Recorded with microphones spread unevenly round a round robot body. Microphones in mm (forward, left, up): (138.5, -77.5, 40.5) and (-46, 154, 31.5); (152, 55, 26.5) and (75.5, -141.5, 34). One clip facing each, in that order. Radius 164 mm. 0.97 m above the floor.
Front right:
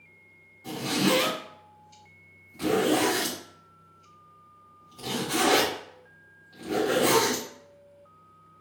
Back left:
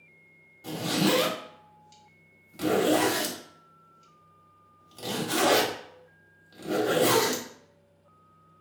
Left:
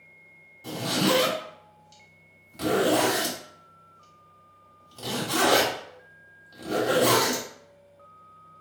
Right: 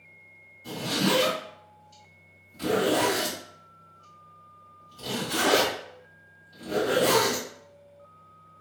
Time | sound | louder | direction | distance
0.6 | a zipper | even, left 2 dB | 90° left | 1.1 m